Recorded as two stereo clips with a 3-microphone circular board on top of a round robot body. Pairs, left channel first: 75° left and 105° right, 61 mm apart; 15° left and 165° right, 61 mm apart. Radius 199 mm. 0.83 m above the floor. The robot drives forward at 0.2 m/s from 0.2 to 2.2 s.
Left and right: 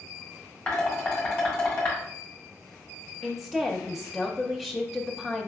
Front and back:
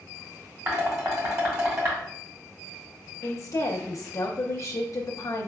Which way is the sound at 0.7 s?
150° left.